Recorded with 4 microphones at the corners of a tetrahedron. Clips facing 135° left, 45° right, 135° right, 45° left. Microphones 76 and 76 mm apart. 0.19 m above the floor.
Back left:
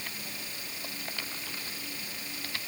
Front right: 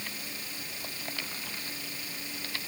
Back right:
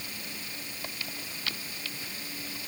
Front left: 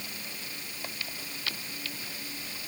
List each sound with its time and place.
Only background noise.